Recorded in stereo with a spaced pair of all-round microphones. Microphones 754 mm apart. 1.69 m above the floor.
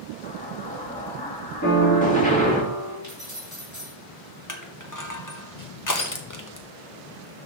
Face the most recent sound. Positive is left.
turn(degrees=25)  # may be behind; listen again after turning